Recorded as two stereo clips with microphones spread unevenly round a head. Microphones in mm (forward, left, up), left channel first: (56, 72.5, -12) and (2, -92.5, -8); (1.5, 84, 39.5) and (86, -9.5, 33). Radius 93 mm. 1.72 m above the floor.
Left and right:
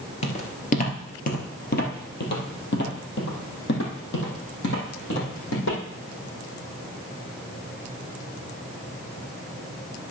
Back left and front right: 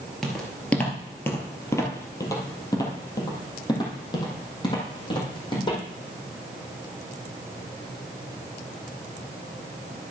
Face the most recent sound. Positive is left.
turn(degrees=85)